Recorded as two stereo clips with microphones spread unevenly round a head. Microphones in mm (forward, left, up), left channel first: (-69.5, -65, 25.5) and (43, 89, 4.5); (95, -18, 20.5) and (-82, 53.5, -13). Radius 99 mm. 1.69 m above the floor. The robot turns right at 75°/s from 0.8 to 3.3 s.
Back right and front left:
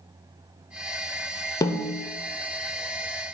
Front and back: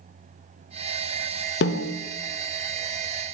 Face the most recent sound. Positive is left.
turn(degrees=75)